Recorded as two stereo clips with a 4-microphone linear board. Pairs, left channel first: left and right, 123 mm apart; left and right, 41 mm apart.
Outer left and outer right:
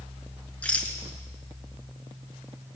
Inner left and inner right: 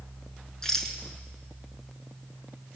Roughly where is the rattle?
Centre.